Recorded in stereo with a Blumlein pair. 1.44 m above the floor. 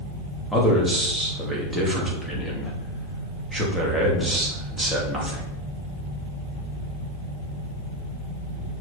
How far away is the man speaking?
About 2.5 m.